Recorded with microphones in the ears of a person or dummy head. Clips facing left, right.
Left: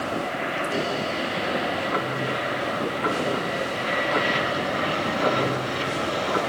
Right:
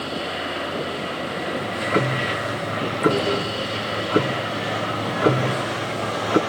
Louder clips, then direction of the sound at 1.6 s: Right 3 dB; 45° right (ahead or behind).